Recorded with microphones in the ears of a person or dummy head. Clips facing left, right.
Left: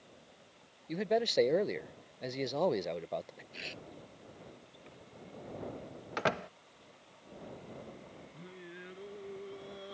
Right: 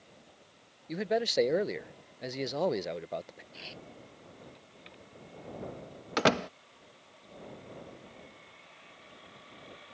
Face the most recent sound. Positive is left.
turn(degrees=80)